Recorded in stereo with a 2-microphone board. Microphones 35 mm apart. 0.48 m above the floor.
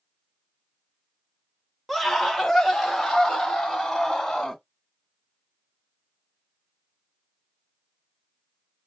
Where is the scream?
Centre (ahead or behind), 1.2 m; by 4.6 s 5° left (ahead or behind), 4 m.